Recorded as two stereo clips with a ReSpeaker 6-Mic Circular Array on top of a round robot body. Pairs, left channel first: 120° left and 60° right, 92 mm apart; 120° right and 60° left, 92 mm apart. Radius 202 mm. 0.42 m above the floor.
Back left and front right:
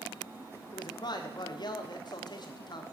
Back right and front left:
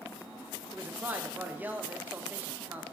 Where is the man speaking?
125° left, 1.6 m.